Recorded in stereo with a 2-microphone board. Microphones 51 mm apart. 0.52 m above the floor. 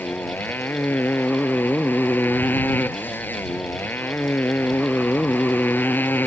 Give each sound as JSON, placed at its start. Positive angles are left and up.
{"t": 0.0, "sound": "a motorcycle", "side_deg": 40}